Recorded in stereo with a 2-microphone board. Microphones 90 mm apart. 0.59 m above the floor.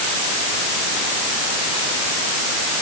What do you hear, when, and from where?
Only background noise.